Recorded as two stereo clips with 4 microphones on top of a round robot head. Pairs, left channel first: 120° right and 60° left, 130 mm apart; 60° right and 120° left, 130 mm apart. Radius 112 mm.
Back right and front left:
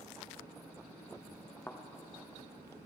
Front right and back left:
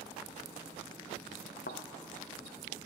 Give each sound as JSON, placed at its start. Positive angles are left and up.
{"t": 1.7, "sound": "a thud", "azimuth_deg": -45, "distance_m": 0.5}